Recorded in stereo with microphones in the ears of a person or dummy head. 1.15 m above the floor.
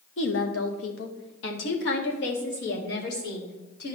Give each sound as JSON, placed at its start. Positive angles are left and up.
{"t": 0.2, "sound": "a woman speaking", "side_deg": 70, "distance_m": 1.0}